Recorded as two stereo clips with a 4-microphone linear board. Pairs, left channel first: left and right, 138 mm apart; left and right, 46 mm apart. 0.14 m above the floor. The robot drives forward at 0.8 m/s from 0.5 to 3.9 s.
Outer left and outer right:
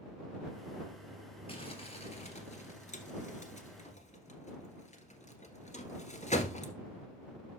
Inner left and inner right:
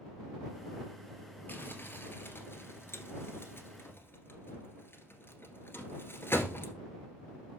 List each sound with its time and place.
1.5 s crumpling: 40° left (ahead or behind), 2 m; by 6.7 s 50° left (ahead or behind), 1.8 m